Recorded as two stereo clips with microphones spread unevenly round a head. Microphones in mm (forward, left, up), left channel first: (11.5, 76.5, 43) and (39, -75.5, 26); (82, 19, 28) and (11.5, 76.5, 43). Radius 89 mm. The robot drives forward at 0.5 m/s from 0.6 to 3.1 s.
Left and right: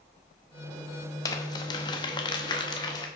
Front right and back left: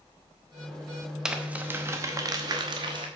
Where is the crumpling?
90° left, 0.8 m; by 3.1 s 160° left, 1.2 m.